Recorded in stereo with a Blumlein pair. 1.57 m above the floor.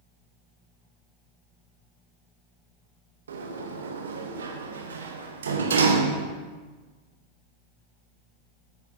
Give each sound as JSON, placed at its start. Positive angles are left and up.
{"t": 3.3, "sound": "a sliding door", "azimuth_deg": -65, "distance_m": 0.8}